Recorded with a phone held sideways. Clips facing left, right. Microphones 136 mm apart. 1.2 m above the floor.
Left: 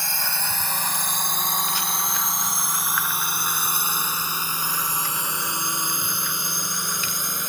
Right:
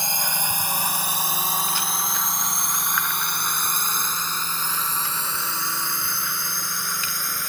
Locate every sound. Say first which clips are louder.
0.0 s a drone: right 2 dB; 20° right (ahead or behind); by 7.5 s 20° left (ahead or behind)